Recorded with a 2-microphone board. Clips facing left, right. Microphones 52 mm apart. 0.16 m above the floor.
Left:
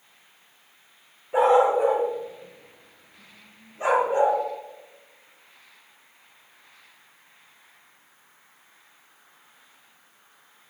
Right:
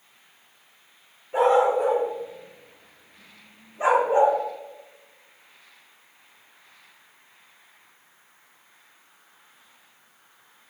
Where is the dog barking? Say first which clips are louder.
Left 1 dB; 15° left (ahead or behind), 4.5 m; by 4.4 s 30° right (ahead or behind), 4.5 m.